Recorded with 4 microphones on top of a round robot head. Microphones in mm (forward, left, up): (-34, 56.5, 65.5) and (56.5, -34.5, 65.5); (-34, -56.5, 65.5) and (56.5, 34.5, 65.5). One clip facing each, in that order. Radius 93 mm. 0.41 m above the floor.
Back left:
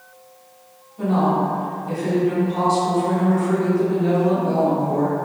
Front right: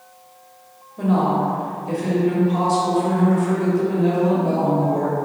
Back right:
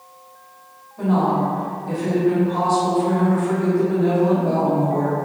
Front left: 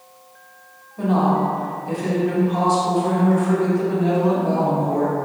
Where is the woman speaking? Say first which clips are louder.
Even, even; 30° right, 1.5 m.